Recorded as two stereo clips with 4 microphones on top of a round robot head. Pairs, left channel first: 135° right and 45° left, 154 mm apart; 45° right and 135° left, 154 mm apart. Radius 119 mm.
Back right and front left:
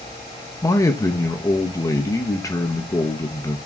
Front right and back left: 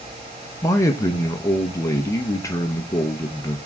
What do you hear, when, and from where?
0.6 s a man speaking: 90° right, 0.9 m